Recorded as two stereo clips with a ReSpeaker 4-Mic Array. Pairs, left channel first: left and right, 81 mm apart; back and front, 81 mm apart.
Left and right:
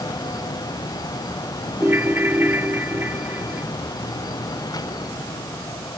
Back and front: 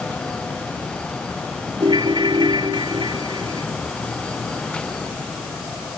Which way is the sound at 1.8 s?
25° right.